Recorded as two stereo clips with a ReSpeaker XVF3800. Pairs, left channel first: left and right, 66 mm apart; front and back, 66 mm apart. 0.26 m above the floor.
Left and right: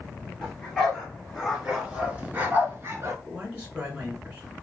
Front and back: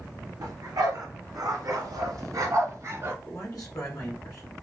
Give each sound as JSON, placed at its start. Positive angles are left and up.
{"t": 0.4, "sound": "a dog barking", "azimuth_deg": 165, "distance_m": 2.5}
{"t": 3.2, "sound": "a man speaking", "azimuth_deg": -25, "distance_m": 3.0}